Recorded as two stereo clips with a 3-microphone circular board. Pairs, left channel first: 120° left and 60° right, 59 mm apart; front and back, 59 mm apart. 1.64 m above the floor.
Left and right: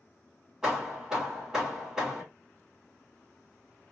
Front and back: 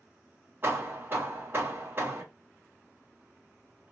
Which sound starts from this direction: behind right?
Hammering, at 0.6 s.